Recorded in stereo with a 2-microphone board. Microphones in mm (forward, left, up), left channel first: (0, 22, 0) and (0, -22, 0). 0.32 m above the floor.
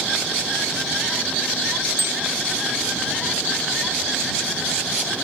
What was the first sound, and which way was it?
A bicycle bell, 75° right (ahead or behind).